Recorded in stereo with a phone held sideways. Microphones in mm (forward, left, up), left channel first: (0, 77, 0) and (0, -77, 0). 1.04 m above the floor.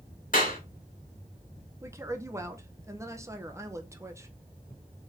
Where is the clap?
65° left (ahead or behind), 2 m.